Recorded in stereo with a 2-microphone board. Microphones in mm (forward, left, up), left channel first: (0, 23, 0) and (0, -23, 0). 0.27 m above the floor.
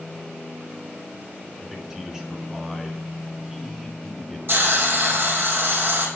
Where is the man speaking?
15° right (ahead or behind), 3.5 m.